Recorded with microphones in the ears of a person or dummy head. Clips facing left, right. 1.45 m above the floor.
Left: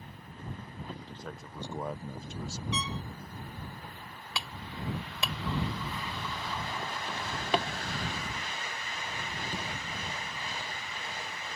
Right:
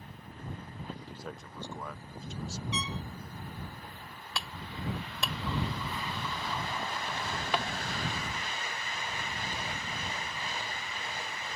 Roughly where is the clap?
Centre.